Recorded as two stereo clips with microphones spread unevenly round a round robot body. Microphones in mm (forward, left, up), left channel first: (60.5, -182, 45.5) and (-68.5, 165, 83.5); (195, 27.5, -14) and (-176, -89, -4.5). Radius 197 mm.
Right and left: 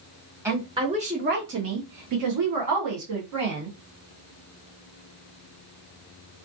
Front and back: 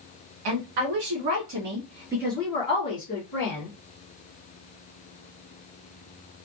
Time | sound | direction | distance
0.5 | a woman speaking | 165° right | 1.2 m